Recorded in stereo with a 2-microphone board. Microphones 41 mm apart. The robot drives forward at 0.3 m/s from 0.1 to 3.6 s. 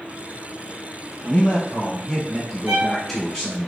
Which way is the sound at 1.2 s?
5° left (ahead or behind).